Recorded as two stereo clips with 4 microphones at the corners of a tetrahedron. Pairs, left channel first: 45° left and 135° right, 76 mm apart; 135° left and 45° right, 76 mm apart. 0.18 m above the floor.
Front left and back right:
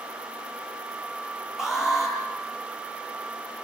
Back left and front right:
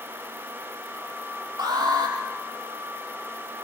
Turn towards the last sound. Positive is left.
turn(degrees=-50)